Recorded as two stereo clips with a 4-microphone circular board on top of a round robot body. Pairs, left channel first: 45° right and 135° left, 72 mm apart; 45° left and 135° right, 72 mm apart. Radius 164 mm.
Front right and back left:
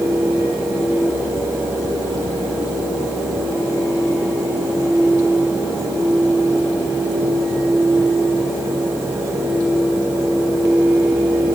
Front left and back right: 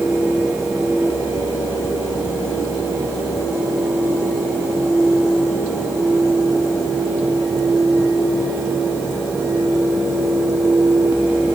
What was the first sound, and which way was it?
Only background noise.